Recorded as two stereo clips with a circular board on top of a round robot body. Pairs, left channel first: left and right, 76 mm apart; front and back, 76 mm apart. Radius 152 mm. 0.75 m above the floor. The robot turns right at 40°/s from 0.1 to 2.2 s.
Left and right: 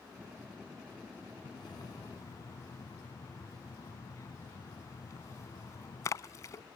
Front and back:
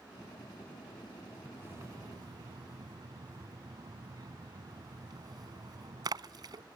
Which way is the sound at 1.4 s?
110° left.